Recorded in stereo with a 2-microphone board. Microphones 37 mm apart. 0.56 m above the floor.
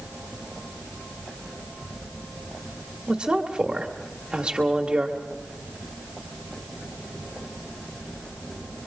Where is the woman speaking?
25° right (ahead or behind), 1.5 m.